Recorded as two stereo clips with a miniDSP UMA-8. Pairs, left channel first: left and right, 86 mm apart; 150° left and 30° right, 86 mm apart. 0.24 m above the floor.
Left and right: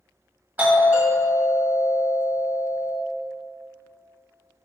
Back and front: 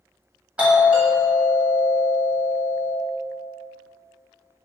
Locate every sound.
0.6 s a doorbell: 75° right, 1.4 m